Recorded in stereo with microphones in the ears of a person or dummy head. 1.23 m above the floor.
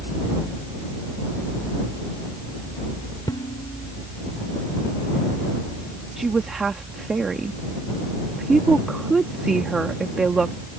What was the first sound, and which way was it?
Dishes clattering, 20° left (ahead or behind).